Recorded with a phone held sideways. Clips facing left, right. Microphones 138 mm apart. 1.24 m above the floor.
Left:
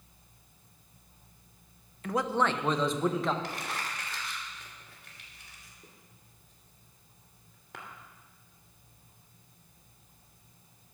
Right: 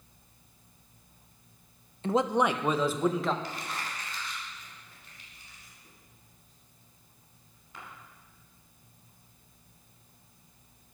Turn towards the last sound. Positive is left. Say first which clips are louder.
# left 1 dB
turn(degrees=80)